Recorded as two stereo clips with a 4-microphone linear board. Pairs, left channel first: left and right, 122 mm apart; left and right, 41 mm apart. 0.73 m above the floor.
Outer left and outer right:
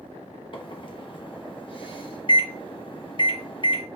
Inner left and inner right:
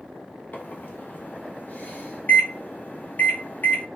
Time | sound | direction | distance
0.5 | a microwave | 45° left (ahead or behind) | 0.6 m